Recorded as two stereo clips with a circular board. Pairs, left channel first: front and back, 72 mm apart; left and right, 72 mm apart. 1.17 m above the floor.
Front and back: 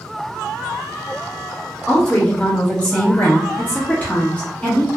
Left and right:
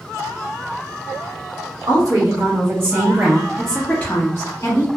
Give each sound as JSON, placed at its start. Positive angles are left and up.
{"t": 1.9, "sound": "a woman speaking", "azimuth_deg": -75, "distance_m": 1.1}